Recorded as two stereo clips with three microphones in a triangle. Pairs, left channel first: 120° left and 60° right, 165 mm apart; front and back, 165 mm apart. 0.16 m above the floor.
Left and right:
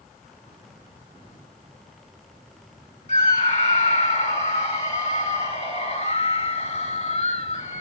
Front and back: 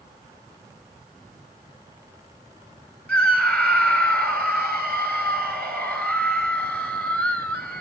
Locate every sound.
3.1 s a scream: 80° left, 2.5 m